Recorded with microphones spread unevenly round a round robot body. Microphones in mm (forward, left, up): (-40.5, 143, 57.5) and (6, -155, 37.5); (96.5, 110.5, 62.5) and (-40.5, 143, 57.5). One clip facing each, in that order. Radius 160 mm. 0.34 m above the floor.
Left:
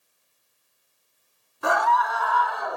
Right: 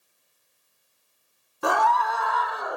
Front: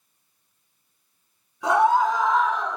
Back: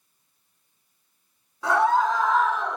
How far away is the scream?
About 1.6 m.